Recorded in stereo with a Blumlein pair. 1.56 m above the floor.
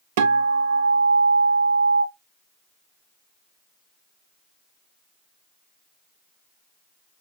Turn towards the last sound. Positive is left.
turn(degrees=-55)